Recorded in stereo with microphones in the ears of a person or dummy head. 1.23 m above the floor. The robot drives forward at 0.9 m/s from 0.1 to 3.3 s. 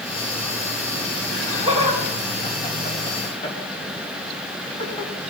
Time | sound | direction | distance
1.3 | laughter | 20° left (ahead or behind) | 4.5 m